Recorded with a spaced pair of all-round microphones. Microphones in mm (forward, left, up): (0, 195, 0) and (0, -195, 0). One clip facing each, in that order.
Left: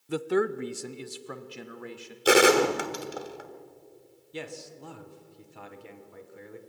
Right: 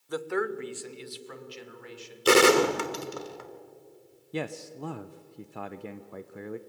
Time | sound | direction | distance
0.1 | a man speaking | 40° left (ahead or behind) | 0.6 m
2.2 | a gunshot | 5° right (ahead or behind) | 1.2 m
4.3 | a man speaking | 70° right (ahead or behind) | 0.6 m